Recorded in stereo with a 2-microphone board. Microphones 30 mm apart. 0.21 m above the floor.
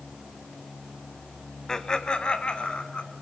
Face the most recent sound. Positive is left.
turn(degrees=40)  # may be behind; listen again after turning